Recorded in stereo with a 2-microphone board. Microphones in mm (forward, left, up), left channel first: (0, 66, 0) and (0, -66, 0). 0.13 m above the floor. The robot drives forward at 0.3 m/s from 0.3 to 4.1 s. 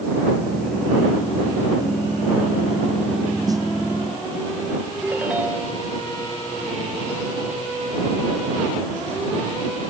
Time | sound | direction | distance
3.5 | a snare drum | 30° right (ahead or behind) | ?
5.0 | a ringtone | 10° right (ahead or behind) | ?